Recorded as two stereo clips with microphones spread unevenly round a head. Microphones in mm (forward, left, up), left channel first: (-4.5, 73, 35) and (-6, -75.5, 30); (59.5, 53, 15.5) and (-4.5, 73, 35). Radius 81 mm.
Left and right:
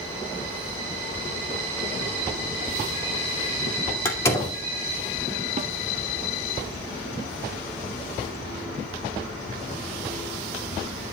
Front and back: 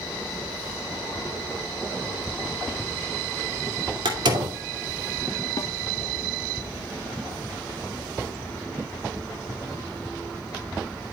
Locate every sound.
4.0 s a door slam: 165° left, 2.5 m
5.6 s a snare drum: 50° right, 0.8 m